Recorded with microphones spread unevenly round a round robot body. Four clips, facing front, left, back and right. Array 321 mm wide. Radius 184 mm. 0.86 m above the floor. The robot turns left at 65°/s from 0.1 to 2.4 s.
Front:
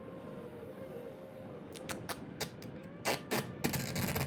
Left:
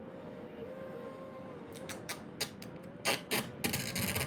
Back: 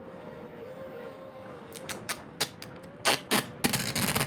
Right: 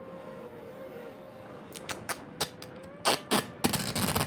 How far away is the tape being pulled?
About 0.7 m.